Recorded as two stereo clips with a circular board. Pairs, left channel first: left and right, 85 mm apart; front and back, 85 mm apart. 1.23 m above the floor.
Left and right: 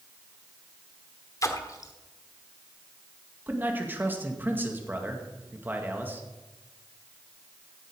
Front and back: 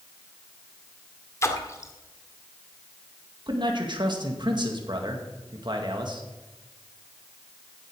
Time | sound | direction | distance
1.4 | a splash | 50° left | 1.4 m
3.5 | a man speaking | 155° right | 2 m